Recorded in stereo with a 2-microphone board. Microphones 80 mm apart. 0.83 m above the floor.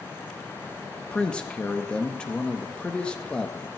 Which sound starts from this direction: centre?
A man speaking, at 1.0 s.